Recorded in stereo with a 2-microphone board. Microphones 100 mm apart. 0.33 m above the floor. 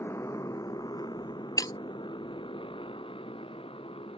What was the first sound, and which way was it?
A motorcycle, 25° left (ahead or behind).